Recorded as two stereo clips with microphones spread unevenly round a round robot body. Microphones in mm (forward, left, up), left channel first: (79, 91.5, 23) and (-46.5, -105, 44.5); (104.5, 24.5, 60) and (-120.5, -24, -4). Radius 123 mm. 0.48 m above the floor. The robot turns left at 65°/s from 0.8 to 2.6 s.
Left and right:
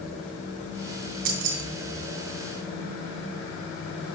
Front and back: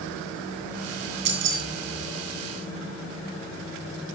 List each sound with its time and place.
1.2 s keys jangling: 130° right, 3 m; by 1.6 s 155° right, 3 m